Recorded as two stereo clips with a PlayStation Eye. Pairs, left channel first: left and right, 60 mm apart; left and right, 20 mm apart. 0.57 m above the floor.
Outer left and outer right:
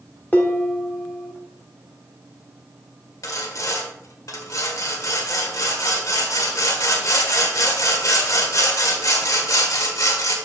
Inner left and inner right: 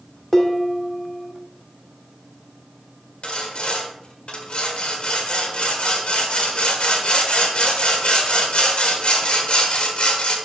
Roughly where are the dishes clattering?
Left.